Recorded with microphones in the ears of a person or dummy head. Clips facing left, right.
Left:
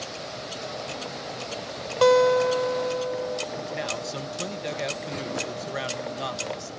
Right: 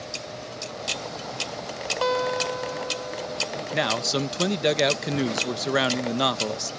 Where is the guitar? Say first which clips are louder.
Left 8 dB; 50° left (ahead or behind).